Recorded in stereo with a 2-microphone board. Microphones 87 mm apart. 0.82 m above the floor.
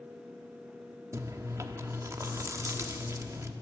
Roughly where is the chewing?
Right.